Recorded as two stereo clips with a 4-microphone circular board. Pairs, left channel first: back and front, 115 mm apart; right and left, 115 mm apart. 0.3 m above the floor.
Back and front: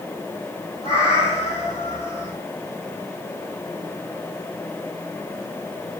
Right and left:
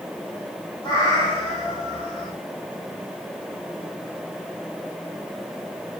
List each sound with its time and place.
0.8 s a cat meowing: 140° right, 4 m